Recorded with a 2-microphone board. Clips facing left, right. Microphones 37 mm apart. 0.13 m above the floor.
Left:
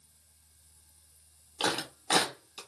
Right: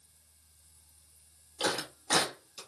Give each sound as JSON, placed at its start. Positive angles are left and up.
{"t": 1.6, "sound": "a clap", "side_deg": 25, "distance_m": 2.5}